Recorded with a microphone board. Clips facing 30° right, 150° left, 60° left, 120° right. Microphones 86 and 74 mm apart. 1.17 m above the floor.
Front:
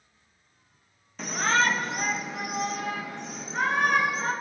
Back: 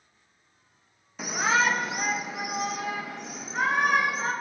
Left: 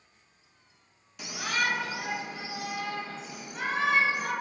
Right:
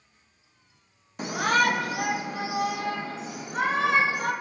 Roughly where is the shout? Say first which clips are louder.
Even, right 8 dB; behind right.